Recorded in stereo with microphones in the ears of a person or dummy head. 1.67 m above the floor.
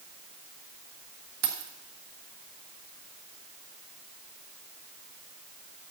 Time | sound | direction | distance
1.4 | keys jangling | 50° right (ahead or behind) | 1.5 m